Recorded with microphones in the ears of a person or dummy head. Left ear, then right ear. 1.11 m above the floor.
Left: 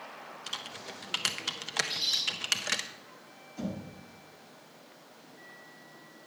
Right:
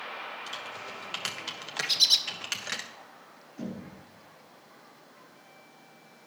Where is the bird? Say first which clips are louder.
Right 9 dB; 60° right (ahead or behind), 0.8 m.